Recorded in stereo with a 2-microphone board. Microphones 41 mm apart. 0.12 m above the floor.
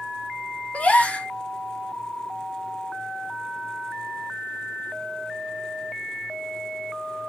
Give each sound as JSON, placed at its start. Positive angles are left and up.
{"t": 0.7, "sound": "a gasp", "side_deg": 35, "distance_m": 0.6}